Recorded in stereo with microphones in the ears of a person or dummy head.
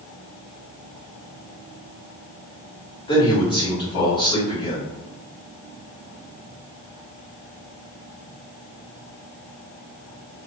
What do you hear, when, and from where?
3.1 s a man speaking: 25° left (ahead or behind), 1.3 m